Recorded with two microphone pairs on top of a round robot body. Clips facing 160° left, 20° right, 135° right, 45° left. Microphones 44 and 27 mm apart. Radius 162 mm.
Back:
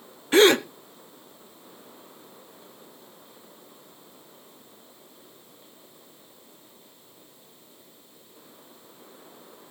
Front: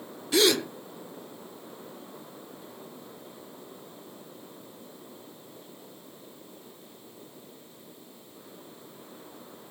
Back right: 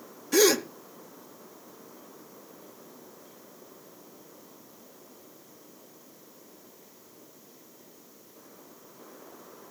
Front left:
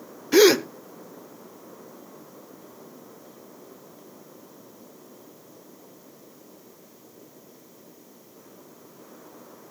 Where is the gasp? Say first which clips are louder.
Back 6 dB, front left 6 dB; 105° left, 1.0 m.